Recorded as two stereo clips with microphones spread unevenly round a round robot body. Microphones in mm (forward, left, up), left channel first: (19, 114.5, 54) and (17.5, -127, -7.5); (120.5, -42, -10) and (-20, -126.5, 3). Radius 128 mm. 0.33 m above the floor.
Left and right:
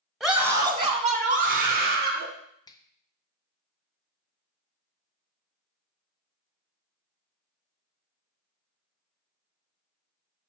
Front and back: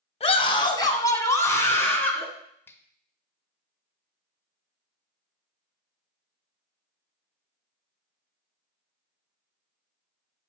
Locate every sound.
0.2 s a scream: 10° right, 1.7 m; by 2.3 s 50° right, 4 m
2.7 s a finger snap: straight ahead, 0.9 m